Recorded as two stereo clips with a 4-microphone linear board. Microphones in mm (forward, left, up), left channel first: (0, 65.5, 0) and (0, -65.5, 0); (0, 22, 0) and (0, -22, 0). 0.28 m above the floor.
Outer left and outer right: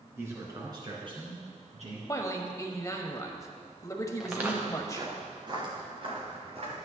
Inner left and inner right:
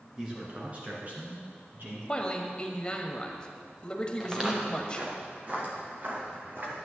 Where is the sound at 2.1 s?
25° left (ahead or behind), 1.1 m.